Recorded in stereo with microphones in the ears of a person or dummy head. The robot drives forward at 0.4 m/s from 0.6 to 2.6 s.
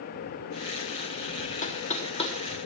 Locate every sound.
1.6 s knocking: 40° left (ahead or behind), 1.0 m; by 2.4 s 30° left (ahead or behind), 1.2 m